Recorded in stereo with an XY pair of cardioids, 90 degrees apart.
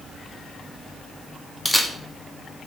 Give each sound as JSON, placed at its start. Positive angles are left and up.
{"t": 1.6, "sound": "a camera shutter", "azimuth_deg": 10, "distance_m": 0.9}